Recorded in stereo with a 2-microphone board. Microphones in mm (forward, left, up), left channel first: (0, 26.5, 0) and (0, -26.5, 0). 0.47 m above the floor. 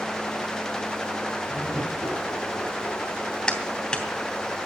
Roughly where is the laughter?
Left.